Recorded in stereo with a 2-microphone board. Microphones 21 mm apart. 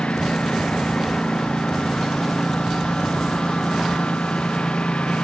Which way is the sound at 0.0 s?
65° left (ahead or behind).